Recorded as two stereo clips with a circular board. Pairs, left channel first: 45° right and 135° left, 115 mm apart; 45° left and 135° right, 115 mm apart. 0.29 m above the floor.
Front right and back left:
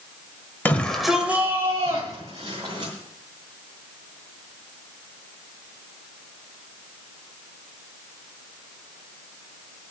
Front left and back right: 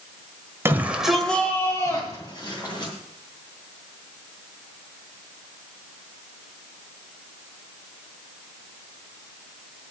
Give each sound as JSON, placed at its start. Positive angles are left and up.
{"t": 0.7, "sound": "a shout", "azimuth_deg": -100, "distance_m": 1.4}